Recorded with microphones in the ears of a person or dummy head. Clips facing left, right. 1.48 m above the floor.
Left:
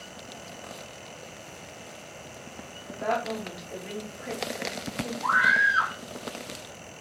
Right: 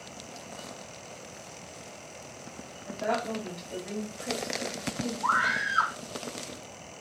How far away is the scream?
About 1.6 m.